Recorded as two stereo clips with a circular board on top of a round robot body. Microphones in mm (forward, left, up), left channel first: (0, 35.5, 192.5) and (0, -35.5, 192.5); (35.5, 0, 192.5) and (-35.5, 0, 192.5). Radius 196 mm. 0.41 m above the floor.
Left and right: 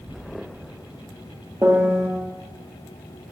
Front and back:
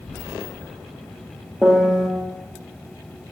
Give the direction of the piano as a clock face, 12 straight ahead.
3 o'clock.